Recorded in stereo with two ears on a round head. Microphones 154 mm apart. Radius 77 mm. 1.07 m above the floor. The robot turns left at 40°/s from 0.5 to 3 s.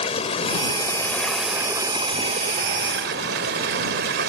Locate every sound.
0.0 s running water: 35° left; by 4.3 s 65° right